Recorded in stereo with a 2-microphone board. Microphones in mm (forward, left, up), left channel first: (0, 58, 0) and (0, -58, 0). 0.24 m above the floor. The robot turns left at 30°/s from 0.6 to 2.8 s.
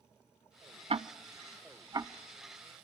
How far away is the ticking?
About 0.5 m.